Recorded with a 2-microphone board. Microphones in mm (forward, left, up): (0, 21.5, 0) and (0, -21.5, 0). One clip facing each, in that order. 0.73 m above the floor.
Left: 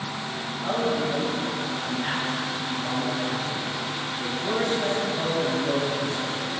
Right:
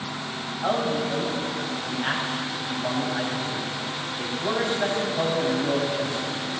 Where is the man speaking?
65° right (ahead or behind), 4.5 m.